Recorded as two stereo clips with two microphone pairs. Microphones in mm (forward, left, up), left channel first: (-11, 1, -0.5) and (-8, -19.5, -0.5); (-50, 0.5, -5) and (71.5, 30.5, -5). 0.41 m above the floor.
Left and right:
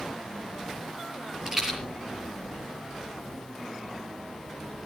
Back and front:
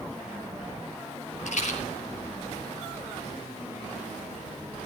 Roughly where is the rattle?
Behind right.